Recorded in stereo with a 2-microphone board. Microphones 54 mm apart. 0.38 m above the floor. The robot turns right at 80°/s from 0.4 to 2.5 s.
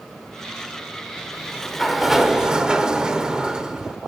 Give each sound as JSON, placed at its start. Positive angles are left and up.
{"t": 1.3, "sound": "a sliding door", "side_deg": 10, "distance_m": 0.6}